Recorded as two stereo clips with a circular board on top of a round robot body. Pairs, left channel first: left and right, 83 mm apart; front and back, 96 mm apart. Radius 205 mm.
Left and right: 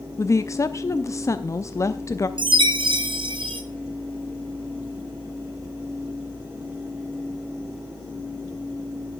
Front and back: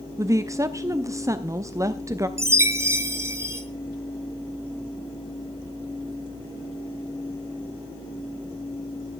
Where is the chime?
115° right, 1.7 m.